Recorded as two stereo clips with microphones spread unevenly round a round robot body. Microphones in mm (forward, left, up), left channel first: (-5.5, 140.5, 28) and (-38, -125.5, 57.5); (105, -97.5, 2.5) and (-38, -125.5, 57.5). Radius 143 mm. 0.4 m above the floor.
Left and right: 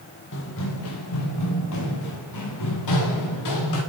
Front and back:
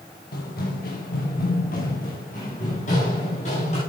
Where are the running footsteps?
35° left, 3 m; by 3.8 s 70° left, 6.5 m.